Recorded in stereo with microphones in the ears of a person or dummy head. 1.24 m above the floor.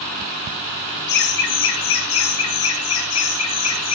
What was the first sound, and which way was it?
Laughter, 55° left (ahead or behind).